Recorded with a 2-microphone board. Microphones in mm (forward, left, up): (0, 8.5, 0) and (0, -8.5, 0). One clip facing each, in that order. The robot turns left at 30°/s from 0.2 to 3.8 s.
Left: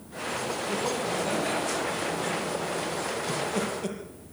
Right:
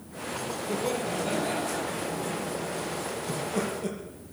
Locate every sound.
0.7 s laughter: 160° right, 6 m; by 2.9 s 135° left, 6 m
3.3 s laughter: 5° left (ahead or behind), 7 m; by 4.0 s 20° left (ahead or behind), 7 m